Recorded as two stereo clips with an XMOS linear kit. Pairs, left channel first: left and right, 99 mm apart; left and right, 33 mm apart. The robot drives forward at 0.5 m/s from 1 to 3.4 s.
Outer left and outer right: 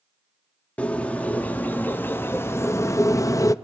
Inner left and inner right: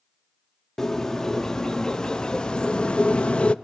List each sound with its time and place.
0.8 s a bird: 15° left (ahead or behind), 1.4 m; by 3.5 s 35° left (ahead or behind), 0.6 m